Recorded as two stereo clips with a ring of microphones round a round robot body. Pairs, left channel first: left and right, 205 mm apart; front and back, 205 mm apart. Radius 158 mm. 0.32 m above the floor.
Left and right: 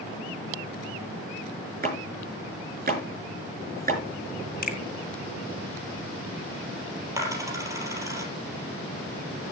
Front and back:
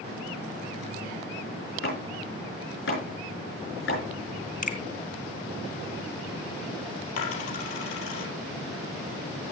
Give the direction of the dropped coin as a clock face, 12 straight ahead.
12 o'clock.